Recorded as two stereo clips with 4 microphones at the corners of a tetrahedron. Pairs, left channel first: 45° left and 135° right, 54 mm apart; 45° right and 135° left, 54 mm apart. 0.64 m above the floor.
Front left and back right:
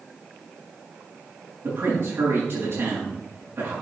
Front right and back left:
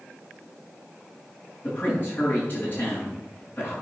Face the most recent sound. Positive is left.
turn(degrees=-95)